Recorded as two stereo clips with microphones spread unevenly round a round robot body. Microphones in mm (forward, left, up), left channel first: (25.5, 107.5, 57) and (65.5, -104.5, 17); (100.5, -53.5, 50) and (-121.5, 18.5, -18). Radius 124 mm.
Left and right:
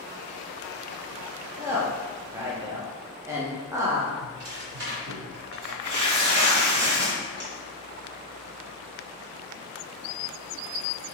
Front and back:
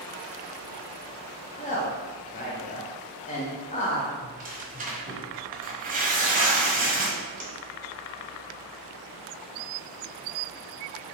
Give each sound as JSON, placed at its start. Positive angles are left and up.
{"t": 1.6, "sound": "a woman speaking", "azimuth_deg": -75, "distance_m": 0.9}
{"t": 4.2, "sound": "tearing paper", "azimuth_deg": -135, "distance_m": 1.1}